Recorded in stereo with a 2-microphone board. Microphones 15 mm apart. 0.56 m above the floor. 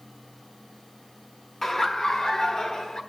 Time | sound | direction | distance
1.6 | laughter | 30° left (ahead or behind) | 0.8 m